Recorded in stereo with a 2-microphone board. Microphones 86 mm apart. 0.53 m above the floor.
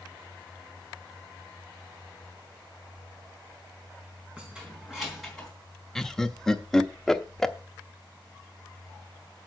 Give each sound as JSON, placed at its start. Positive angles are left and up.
{"t": 4.4, "sound": "keys jangling", "side_deg": -15, "distance_m": 4.0}
{"t": 6.0, "sound": "laughter", "side_deg": 5, "distance_m": 0.8}